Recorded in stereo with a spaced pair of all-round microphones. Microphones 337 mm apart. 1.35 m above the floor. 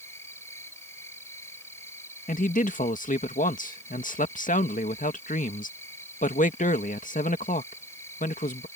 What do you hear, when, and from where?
0.0 s an insect: 10° left (ahead or behind)
2.3 s a man speaking: 25° left (ahead or behind)